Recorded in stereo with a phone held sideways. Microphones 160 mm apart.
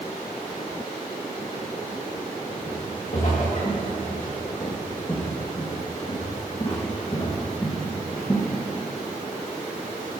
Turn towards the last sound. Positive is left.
turn(degrees=20)  # may be behind; listen again after turning